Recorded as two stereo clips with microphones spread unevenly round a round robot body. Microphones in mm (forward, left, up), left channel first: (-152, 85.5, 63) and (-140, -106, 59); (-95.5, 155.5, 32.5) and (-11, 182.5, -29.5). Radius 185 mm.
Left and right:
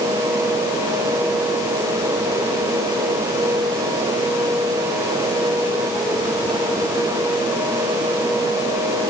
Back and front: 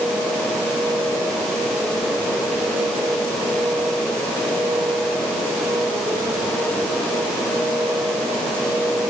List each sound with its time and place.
Only background noise.